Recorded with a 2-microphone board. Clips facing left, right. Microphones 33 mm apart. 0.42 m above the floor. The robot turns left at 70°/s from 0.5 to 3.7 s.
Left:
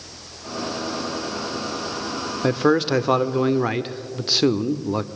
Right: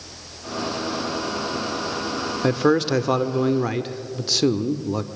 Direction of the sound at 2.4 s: Centre (ahead or behind).